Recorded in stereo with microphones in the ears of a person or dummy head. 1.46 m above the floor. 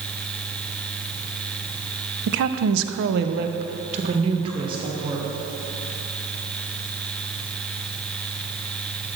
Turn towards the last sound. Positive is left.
turn(degrees=-25)  # may be behind; listen again after turning